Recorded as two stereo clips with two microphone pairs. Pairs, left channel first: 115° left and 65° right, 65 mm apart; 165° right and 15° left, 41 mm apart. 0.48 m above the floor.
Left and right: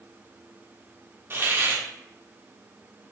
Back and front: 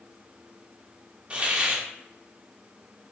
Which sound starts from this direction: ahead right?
A hiss, at 1.3 s.